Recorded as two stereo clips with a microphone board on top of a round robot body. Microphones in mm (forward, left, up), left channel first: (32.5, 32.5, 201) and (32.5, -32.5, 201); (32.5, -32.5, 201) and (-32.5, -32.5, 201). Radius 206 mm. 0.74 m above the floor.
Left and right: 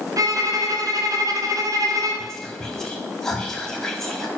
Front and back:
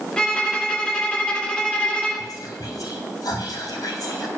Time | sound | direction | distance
0.2 | a violin | 75° right | 1.6 m
2.2 | whispering | 10° left | 2.5 m